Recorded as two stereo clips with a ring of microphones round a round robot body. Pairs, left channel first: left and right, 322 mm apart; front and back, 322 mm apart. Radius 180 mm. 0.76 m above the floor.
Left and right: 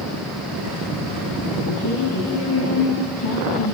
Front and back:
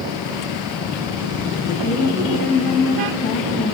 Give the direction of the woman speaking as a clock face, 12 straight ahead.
10 o'clock.